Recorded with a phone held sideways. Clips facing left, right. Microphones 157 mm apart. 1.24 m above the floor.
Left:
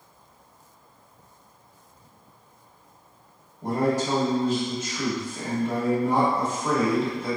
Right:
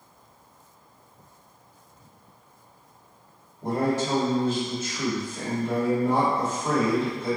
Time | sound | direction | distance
3.6 | a man speaking | 45° left (ahead or behind) | 1.4 m